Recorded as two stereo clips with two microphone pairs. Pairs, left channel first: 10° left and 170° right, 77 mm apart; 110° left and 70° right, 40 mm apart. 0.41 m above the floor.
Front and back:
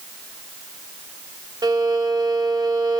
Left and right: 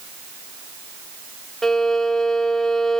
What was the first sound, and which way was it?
A violin, 175° right.